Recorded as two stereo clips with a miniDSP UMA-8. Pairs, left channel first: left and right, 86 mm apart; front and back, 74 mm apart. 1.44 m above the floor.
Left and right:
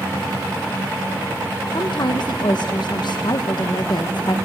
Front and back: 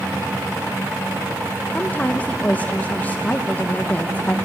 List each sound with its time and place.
1.7 s a woman speaking: 70° left, 0.9 m